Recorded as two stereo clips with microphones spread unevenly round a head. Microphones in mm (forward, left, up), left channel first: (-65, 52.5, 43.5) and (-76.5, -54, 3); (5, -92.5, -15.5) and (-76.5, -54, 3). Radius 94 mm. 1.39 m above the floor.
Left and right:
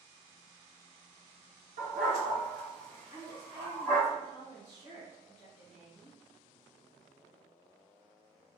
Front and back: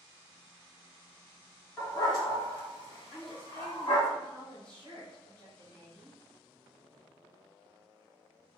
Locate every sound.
1.8 s a dog barking: 65° right, 1.4 m; by 4.1 s 5° right, 2 m
3.1 s a woman speaking: 30° left, 1.2 m